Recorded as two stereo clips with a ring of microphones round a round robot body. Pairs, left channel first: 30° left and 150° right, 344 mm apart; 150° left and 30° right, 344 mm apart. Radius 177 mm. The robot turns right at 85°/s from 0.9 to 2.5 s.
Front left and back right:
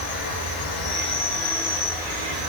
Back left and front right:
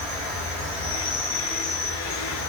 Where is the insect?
35° left, 2.5 m; by 2.5 s 170° left, 2.5 m.